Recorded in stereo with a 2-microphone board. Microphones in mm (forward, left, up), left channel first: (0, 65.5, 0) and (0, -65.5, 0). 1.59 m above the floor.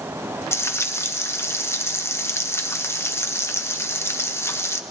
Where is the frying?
20° left (ahead or behind), 1.1 m.